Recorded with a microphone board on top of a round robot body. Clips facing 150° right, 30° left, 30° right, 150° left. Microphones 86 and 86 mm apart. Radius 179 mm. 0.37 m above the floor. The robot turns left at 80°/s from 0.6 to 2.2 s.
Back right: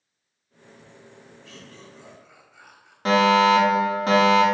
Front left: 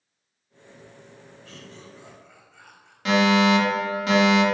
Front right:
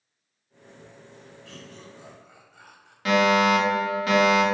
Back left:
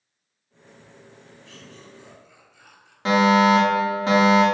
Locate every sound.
1.4 s laughter: 10° right, 3.5 m; by 3.0 s 70° right, 3.5 m
3.0 s a fire alarm: 165° right, 2.5 m